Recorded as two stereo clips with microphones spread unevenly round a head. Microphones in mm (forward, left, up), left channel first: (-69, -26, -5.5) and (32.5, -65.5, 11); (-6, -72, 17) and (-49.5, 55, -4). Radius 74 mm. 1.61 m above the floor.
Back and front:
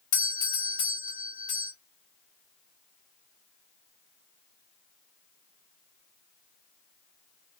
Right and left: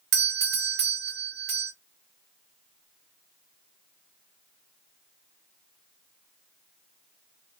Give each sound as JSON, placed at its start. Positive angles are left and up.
{"t": 0.1, "sound": "a doorbell", "azimuth_deg": 100, "distance_m": 1.9}